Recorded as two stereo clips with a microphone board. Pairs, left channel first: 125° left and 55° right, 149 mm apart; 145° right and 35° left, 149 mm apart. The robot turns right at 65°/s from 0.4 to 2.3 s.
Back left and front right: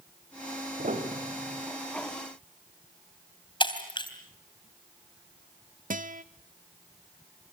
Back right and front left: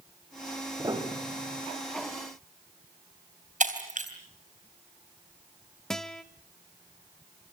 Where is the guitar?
60° right, 0.9 m.